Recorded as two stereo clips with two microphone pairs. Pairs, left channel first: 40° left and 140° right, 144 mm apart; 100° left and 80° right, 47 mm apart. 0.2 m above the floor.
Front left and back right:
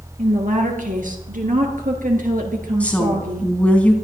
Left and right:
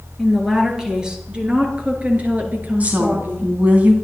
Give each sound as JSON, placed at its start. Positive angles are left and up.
{"t": 0.2, "sound": "a woman speaking", "azimuth_deg": -165, "distance_m": 3.5}
{"t": 2.8, "sound": "a woman speaking", "azimuth_deg": -40, "distance_m": 1.8}